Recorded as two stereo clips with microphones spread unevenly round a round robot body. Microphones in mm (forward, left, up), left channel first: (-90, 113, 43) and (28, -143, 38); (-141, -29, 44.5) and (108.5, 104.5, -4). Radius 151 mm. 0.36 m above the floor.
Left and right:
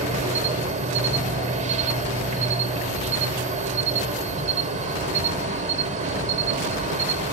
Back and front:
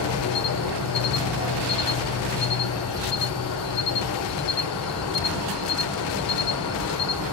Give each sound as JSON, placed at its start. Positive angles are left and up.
{"t": 0.0, "sound": "an insect", "azimuth_deg": -125, "distance_m": 0.9}